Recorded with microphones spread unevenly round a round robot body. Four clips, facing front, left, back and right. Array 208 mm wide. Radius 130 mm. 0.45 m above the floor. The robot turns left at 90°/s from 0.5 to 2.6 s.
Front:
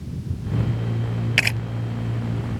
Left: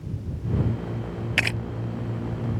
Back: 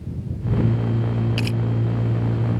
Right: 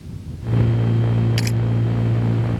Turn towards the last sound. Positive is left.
turn(degrees=-85)